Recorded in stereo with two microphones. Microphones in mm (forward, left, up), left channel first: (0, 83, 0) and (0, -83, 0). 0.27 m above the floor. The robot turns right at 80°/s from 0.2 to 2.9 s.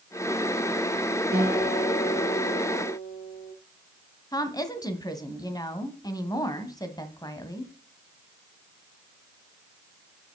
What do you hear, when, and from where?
1.3 s a guitar: 100° right, 4 m; by 3.5 s 25° left, 4 m
4.3 s a woman speaking: 20° left (ahead or behind), 2.0 m